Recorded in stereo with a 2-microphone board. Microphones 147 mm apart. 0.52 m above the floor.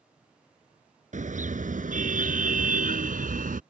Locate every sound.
1.1 s a car horn: 60° right (ahead or behind); by 3.6 s 70° right (ahead or behind)